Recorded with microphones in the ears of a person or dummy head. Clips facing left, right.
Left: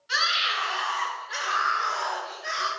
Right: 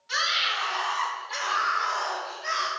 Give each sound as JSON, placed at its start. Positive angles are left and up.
{"t": 0.1, "sound": "a scream", "side_deg": 5, "distance_m": 3.5}